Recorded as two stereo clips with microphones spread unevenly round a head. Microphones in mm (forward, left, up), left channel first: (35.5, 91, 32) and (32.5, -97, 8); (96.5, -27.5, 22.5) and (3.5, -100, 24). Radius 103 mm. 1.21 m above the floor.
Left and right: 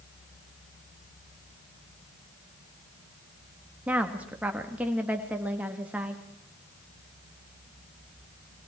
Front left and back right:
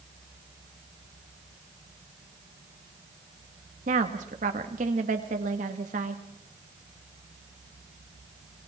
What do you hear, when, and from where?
3.9 s a woman speaking: 175° right, 2 m